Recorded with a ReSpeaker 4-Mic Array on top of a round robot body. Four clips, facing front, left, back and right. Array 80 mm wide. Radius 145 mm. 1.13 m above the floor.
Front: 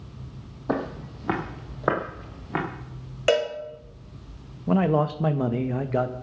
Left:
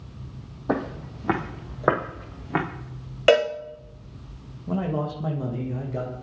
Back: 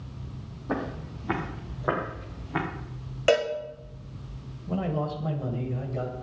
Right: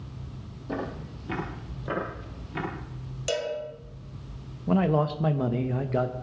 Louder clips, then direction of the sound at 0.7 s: Left 6 dB, front 3 dB; 55° left.